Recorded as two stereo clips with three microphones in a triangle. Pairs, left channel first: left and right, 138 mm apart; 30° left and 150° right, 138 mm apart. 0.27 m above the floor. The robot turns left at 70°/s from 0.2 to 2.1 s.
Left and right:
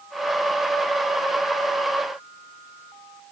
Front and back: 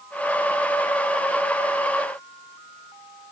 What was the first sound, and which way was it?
Only background noise.